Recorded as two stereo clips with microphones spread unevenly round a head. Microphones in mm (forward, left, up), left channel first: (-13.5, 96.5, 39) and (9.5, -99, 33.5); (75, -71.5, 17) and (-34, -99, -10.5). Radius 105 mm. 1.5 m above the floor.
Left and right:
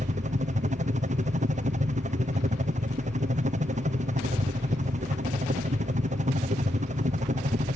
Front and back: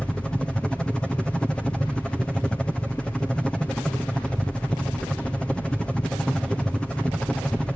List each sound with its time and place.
0.0 s a helicopter: 80° right